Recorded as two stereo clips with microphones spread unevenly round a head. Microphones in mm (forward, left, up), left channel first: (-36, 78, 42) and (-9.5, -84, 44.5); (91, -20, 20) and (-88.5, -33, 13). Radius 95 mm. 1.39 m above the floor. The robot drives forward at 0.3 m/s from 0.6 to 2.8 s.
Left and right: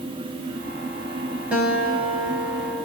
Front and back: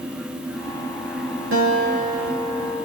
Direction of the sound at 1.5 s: 165° right.